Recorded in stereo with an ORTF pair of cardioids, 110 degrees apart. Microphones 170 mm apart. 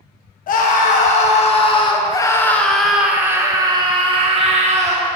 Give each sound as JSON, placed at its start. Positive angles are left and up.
{"t": 0.5, "sound": "a scream", "azimuth_deg": 55, "distance_m": 1.7}